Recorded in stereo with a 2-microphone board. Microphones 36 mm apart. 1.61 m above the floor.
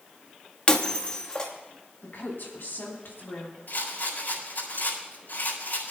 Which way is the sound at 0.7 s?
25° left (ahead or behind).